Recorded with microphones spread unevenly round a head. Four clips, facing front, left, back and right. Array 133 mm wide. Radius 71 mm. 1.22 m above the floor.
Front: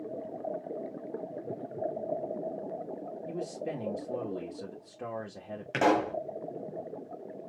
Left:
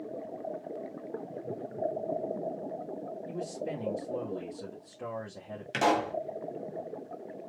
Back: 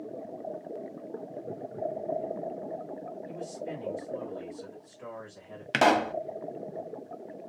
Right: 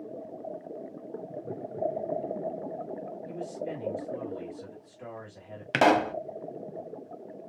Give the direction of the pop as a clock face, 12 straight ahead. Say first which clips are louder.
Right 5 dB, back 2 dB; 4 o'clock.